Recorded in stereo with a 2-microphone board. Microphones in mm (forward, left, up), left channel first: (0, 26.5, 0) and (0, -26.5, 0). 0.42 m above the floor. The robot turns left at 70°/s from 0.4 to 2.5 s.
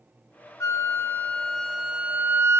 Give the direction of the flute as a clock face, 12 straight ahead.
9 o'clock.